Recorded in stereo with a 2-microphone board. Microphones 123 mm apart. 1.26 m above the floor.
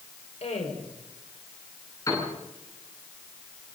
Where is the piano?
25° left (ahead or behind), 10 m.